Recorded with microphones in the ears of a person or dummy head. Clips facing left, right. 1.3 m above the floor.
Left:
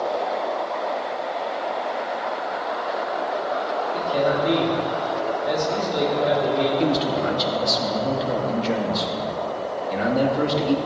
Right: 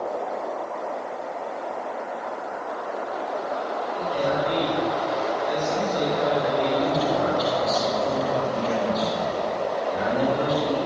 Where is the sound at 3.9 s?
60° left (ahead or behind), 3.5 m.